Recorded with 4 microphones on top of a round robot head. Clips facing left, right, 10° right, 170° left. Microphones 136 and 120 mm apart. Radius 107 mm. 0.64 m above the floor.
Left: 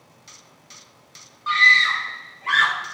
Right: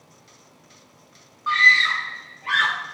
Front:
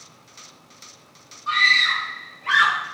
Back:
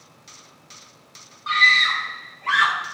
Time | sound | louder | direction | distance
1.5 | a scream | left 1 dB, back 1 dB | 150° left | 1.9 m